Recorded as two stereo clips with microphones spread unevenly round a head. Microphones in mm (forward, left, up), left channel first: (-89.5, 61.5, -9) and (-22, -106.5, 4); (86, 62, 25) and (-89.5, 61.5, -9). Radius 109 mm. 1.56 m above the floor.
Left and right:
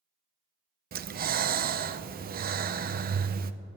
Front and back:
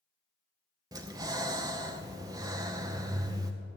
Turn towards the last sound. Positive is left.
turn(degrees=-110)